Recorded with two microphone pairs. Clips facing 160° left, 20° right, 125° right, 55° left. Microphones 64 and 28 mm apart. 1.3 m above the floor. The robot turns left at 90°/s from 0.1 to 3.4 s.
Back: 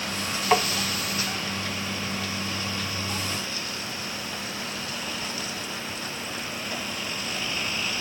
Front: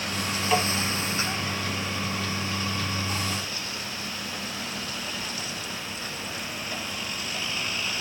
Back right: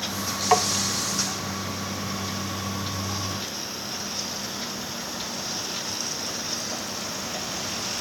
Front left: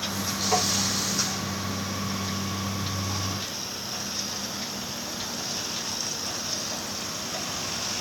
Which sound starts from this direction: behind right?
Tapping, at 0.5 s.